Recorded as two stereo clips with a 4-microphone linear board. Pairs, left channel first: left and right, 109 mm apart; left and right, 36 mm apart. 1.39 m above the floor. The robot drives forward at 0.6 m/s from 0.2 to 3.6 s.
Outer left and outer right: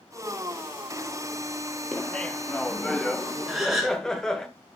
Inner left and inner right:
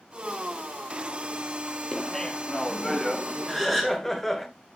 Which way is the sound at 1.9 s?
15° left (ahead or behind).